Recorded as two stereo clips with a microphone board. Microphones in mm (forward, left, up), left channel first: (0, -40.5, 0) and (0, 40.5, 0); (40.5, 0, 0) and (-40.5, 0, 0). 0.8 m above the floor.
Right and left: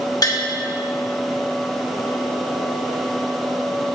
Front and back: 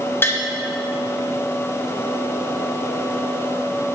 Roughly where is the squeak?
No squeak in this recording.